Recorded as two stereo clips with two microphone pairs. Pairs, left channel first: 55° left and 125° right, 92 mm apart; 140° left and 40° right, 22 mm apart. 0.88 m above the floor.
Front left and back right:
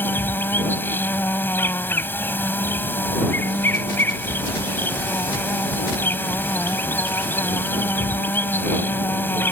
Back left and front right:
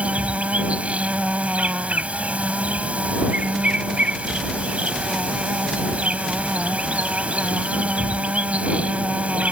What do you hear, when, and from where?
0.0 s an insect: 10° right